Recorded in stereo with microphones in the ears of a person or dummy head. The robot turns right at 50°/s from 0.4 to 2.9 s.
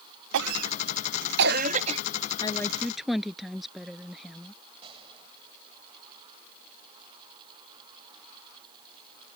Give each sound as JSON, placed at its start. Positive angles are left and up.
{"t": 0.3, "sound": "a cough", "side_deg": -70}
{"t": 2.4, "sound": "a woman speaking", "side_deg": 25}
{"t": 4.8, "sound": "a gunshot", "side_deg": -35}